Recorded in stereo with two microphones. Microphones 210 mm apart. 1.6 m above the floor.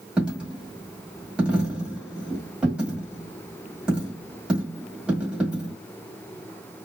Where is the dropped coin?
5° right (ahead or behind), 1.7 m.